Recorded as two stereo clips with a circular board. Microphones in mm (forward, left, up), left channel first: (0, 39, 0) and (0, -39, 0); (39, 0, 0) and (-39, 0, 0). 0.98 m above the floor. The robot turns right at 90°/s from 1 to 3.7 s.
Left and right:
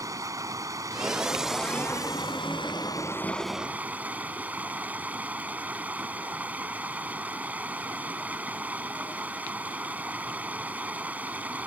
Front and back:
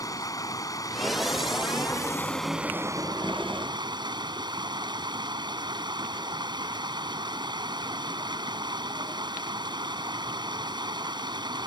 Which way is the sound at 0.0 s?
40° right.